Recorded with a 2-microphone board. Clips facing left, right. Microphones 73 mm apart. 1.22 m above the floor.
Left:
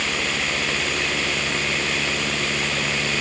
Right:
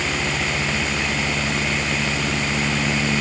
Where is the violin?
I don't hear a violin.